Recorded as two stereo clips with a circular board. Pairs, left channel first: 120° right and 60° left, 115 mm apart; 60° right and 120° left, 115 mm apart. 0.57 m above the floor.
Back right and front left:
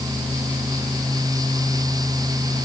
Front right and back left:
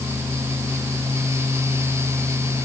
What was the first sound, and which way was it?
Only background noise.